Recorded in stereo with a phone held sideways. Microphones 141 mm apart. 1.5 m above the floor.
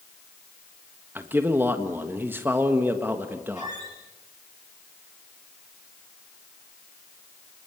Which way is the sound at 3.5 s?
55° left (ahead or behind).